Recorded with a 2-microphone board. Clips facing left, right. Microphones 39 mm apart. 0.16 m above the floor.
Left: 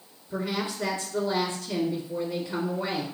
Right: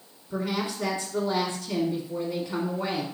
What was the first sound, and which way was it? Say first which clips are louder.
A woman speaking: right 1 dB; 30° right (ahead or behind).